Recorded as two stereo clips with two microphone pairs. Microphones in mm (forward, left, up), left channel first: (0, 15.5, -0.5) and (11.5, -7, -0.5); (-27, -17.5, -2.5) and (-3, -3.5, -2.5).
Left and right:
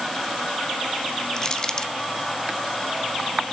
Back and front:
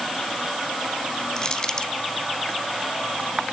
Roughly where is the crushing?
Behind.